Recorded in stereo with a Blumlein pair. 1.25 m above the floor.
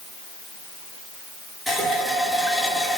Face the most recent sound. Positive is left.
turn(degrees=-5)